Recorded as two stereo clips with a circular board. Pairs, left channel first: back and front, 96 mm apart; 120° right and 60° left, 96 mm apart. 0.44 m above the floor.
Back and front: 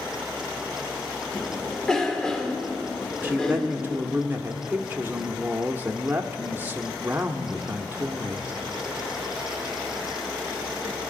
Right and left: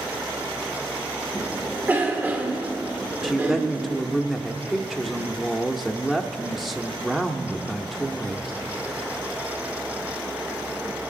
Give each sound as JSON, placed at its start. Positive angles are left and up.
{"t": 1.4, "sound": "a cough", "azimuth_deg": 105, "distance_m": 1.0}
{"t": 3.2, "sound": "a woman speaking", "azimuth_deg": -20, "distance_m": 0.7}